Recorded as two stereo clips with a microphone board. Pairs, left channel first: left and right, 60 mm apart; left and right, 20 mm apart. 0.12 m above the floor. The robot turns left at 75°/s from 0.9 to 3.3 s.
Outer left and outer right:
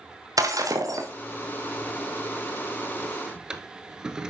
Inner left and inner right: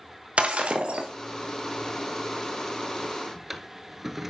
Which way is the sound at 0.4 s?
80° right.